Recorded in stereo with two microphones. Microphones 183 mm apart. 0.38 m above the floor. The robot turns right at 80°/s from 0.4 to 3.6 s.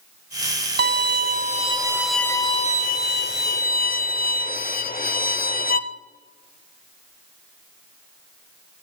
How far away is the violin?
About 0.6 m.